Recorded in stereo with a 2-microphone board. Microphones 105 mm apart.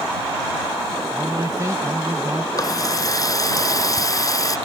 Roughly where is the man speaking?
Right.